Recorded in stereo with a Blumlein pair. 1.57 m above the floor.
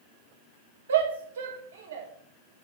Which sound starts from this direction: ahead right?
A shout, at 0.9 s.